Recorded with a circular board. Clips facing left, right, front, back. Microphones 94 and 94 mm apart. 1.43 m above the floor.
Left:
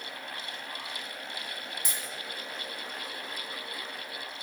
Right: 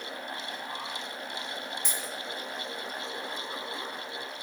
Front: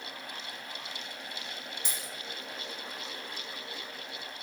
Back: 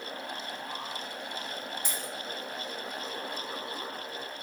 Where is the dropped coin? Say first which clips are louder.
Right 3 dB, back 4 dB; 170° left, 1.0 m.